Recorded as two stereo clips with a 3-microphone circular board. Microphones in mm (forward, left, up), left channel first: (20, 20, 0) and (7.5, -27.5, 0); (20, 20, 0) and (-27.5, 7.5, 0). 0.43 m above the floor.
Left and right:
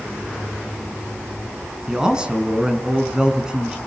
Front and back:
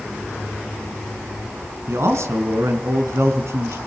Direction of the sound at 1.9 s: Straight behind.